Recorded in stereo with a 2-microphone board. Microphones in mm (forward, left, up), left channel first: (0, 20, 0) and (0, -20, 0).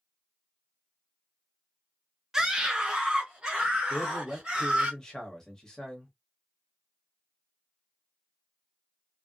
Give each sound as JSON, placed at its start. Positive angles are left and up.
{"t": 2.3, "sound": "a scream", "side_deg": -15, "distance_m": 1.0}
{"t": 3.9, "sound": "a man speaking", "side_deg": 15, "distance_m": 1.3}